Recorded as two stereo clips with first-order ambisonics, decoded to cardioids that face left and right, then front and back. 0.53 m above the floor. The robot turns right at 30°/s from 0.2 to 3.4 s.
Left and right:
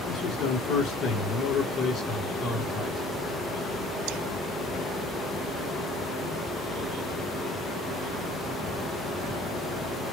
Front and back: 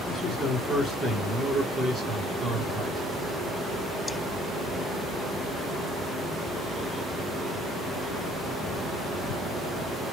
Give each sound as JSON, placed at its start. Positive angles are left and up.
{"t": 0.1, "sound": "a man speaking", "azimuth_deg": 75, "distance_m": 1.3}